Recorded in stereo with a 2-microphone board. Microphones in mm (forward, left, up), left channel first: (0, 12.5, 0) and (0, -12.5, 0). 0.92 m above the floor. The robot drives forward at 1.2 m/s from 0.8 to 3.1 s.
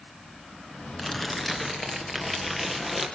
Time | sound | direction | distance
1.0 | crumpling | 10° left (ahead or behind) | 1.6 m